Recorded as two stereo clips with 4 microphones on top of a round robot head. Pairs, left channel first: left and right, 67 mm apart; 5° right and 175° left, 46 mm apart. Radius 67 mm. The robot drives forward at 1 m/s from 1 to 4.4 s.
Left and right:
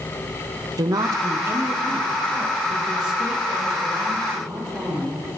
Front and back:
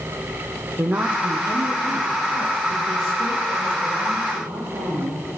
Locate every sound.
0.8 s a woman speaking: 125° right, 0.7 m; by 5.2 s 170° right, 4 m